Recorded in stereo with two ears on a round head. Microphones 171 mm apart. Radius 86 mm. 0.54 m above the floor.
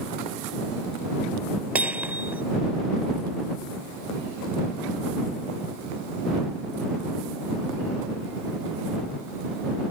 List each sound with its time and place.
1.8 s hammering: 5° right (ahead or behind)